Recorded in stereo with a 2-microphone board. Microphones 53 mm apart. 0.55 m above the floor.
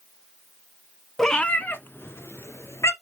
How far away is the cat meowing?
About 0.8 m.